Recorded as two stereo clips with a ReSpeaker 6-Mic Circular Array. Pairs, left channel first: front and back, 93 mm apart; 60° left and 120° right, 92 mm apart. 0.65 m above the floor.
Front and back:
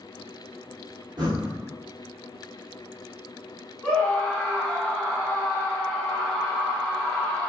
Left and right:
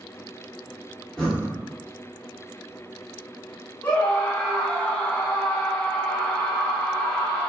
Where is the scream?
90° left, 0.9 m.